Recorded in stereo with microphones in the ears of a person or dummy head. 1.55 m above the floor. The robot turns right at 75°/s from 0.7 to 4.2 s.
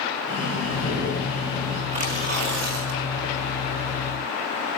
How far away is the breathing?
About 9.5 m.